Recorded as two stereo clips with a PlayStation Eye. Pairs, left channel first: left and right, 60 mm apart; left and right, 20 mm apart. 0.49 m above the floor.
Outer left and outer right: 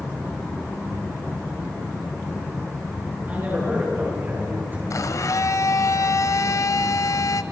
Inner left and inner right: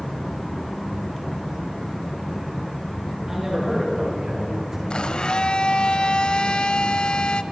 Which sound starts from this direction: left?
A blender, at 4.9 s.